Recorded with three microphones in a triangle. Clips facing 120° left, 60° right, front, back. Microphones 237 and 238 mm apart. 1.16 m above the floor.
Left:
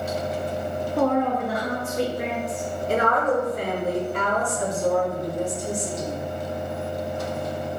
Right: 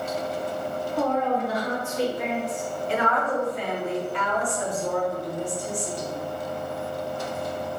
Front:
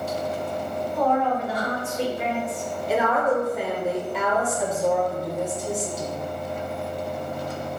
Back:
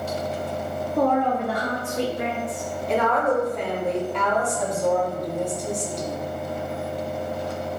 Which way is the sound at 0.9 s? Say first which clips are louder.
Left 3 dB, back 2 dB; 145° left.